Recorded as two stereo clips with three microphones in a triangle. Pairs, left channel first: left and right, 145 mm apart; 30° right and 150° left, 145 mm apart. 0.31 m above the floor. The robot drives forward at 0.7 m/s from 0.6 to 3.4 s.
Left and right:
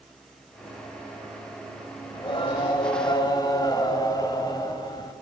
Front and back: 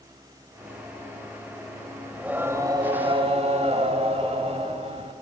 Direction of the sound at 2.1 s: 70° left.